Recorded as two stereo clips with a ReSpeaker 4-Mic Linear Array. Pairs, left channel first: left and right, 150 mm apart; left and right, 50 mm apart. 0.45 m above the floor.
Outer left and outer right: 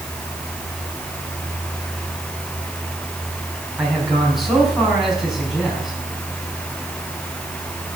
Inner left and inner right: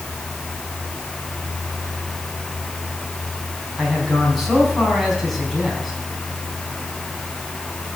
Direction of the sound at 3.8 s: Centre (ahead or behind).